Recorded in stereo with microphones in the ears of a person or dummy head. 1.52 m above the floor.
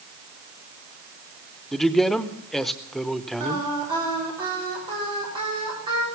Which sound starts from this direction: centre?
A man speaking, at 1.7 s.